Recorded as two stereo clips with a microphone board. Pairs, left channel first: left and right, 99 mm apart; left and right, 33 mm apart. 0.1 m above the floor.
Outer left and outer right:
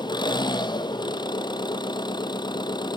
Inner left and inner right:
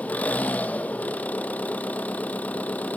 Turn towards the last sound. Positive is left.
turn(degrees=50)  # may be behind; listen again after turning